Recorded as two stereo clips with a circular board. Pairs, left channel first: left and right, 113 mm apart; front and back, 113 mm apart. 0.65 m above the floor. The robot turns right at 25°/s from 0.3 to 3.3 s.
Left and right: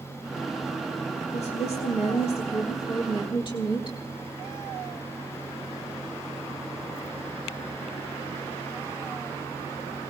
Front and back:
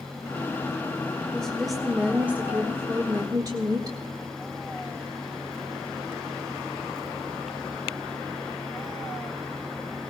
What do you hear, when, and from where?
1.3 s a woman speaking: 80° left, 1.3 m; by 4.0 s 130° left, 1.3 m